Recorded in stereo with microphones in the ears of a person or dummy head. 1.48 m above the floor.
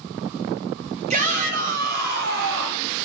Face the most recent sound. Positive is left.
turn(degrees=-65)  # may be behind; listen again after turning